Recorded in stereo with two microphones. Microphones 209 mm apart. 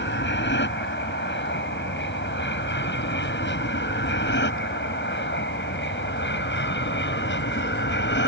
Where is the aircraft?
60° left (ahead or behind).